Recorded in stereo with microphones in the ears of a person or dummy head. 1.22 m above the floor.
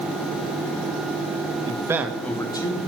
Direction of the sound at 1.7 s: 30° right (ahead or behind).